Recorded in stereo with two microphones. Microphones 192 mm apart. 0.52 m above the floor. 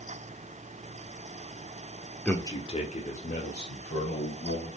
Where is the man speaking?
5° left (ahead or behind), 1.4 m; by 4.7 s 70° left (ahead or behind), 4 m.